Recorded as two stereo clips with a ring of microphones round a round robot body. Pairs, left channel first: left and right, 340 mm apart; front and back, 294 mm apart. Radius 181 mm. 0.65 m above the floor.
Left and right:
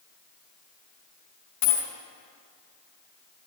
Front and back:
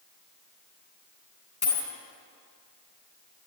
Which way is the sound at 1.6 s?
60° left.